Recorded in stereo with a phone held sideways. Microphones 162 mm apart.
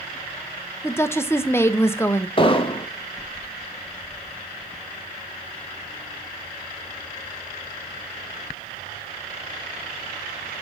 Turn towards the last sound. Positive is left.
turn(degrees=35)  # may be behind; listen again after turning